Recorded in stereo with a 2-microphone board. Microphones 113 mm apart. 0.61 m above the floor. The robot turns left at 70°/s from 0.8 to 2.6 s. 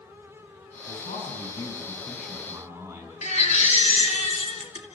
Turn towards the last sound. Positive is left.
turn(degrees=80)